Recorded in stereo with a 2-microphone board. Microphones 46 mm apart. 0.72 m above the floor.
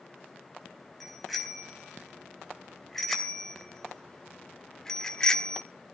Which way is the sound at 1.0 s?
Centre (ahead or behind).